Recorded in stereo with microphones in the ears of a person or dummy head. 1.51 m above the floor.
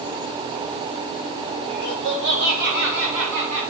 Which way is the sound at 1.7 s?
60° right (ahead or behind).